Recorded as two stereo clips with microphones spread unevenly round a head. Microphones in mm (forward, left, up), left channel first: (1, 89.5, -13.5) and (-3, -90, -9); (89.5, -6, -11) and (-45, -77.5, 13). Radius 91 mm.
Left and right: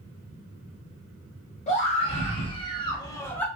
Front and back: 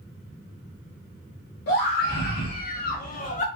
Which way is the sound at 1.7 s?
35° left.